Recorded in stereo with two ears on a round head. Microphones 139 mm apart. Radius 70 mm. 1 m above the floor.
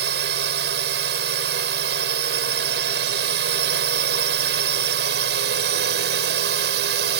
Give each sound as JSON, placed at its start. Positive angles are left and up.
{"t": 0.0, "sound": "a drone", "side_deg": -70}